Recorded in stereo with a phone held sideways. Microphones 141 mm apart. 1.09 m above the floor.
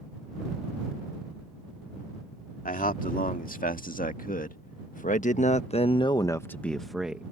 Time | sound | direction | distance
2.6 | a man speaking | 75° left (ahead or behind) | ?